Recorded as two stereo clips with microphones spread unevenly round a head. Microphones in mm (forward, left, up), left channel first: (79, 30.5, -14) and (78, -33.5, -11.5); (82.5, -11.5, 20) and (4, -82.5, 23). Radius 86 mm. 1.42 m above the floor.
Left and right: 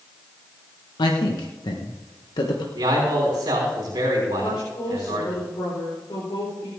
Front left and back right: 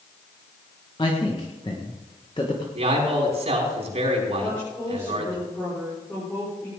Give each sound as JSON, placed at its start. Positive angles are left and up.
{"t": 1.0, "sound": "a man speaking", "azimuth_deg": 105, "distance_m": 1.2}
{"t": 2.8, "sound": "a man speaking", "azimuth_deg": -125, "distance_m": 5.0}
{"t": 4.4, "sound": "a woman speaking", "azimuth_deg": 120, "distance_m": 4.5}